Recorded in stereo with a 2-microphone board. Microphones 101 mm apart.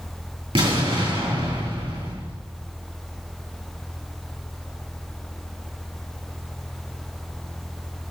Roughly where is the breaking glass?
I don't hear breaking glass.